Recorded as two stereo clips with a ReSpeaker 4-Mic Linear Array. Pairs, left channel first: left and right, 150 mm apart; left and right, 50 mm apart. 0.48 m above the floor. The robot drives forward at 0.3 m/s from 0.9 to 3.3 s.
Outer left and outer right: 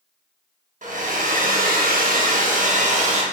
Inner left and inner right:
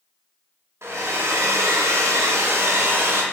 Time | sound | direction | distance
0.8 | a hair dryer | 60° right (ahead or behind) | 0.6 m